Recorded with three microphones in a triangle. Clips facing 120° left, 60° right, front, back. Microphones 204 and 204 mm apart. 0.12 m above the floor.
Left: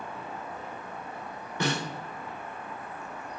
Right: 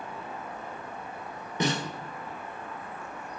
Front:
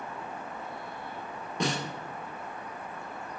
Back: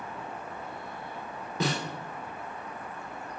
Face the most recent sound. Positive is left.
turn(degrees=-95)